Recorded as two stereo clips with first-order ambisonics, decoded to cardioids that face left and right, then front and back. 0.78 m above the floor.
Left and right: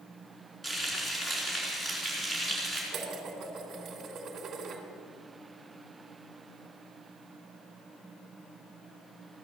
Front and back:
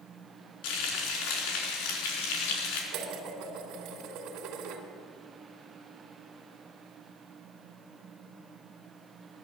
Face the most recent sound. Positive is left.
turn(degrees=-150)